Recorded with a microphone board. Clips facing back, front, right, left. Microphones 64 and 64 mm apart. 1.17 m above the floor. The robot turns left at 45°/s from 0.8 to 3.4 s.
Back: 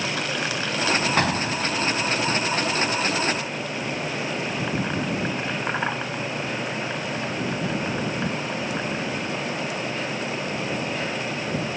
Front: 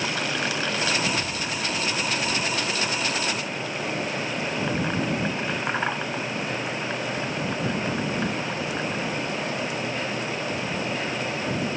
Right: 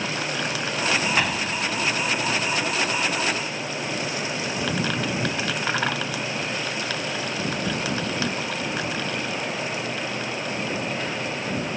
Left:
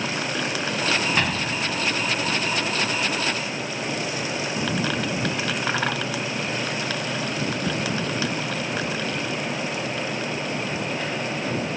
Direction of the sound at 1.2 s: 175° right.